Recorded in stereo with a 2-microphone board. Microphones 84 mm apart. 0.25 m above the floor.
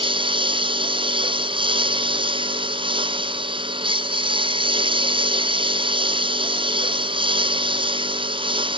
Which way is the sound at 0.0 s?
90° right.